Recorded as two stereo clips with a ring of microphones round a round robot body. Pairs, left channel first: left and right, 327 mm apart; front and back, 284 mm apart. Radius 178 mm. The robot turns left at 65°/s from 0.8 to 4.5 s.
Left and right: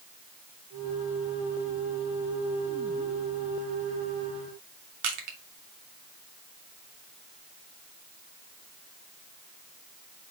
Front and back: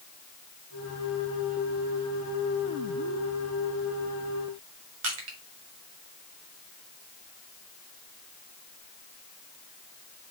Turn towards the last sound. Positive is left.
turn(degrees=-130)